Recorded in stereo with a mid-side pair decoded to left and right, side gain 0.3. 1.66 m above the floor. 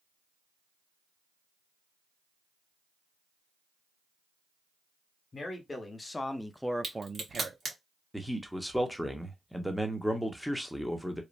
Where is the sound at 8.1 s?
10° left, 0.9 m.